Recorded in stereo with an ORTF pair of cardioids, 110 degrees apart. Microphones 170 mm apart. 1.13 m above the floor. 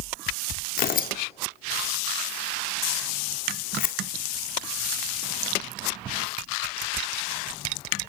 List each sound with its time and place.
0.8 s tearing paper: 60° left, 1.9 m